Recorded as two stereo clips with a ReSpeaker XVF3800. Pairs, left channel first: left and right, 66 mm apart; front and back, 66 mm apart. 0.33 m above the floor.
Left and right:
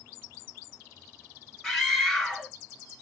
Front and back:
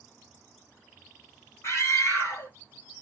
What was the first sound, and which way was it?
A scream, 5° left.